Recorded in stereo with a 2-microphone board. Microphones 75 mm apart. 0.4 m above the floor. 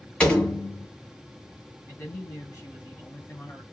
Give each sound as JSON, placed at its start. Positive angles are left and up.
{"t": 0.2, "sound": "a door slam", "side_deg": 15, "distance_m": 1.7}
{"t": 1.9, "sound": "a man speaking", "side_deg": 35, "distance_m": 2.5}